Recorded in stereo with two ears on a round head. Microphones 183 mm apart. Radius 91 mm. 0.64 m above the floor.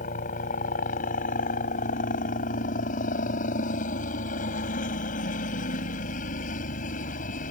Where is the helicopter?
40° left (ahead or behind).